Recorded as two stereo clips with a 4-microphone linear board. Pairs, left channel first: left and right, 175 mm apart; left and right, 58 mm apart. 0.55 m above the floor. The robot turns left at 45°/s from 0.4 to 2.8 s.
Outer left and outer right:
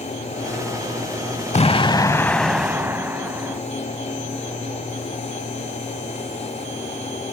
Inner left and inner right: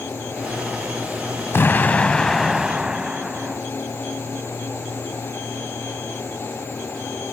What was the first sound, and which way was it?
An explosion, 45° left.